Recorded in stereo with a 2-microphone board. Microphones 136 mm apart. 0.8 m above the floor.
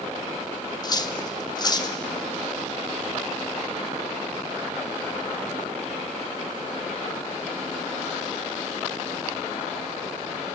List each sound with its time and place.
0.8 s cutlery clinking: 30° left (ahead or behind), 0.7 m